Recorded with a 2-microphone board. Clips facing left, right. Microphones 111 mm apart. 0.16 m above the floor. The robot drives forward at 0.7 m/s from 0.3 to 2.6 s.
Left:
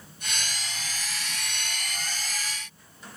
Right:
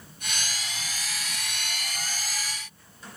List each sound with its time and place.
Only background noise.